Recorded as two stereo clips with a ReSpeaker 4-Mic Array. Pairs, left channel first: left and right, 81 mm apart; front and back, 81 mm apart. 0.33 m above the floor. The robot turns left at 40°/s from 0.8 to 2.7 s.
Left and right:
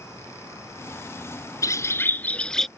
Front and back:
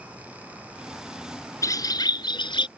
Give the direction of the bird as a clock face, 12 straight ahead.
10 o'clock.